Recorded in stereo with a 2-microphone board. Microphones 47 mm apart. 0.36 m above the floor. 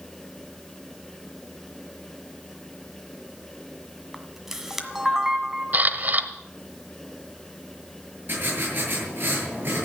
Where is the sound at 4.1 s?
5° right (ahead or behind), 1.5 m.